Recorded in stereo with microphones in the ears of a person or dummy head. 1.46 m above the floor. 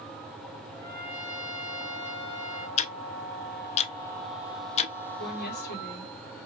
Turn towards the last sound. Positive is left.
turn(degrees=55)  # may be behind; listen again after turning